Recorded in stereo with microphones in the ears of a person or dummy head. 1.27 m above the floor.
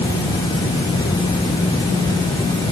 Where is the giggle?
No giggle in this recording.